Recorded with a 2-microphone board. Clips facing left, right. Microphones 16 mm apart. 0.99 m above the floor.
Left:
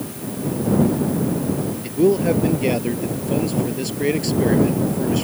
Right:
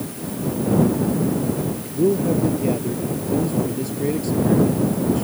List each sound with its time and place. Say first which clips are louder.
1.8 s a man speaking: left 3 dB; 50° left (ahead or behind)